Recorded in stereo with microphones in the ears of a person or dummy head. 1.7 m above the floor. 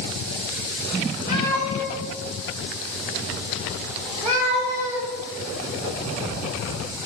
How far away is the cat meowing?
About 1.7 m.